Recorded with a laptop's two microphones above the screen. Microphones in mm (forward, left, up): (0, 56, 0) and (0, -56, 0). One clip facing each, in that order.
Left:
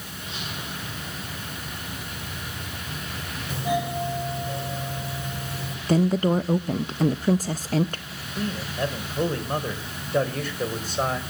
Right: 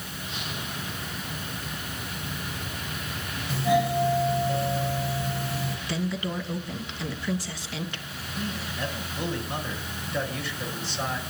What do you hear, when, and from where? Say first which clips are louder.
3.5 s a doorbell: right 3 dB; 20° left (ahead or behind), 6.5 m
5.9 s a woman speaking: left 12 dB; 45° left (ahead or behind), 0.6 m
8.4 s a man speaking: left 5 dB; 45° left (ahead or behind), 3.5 m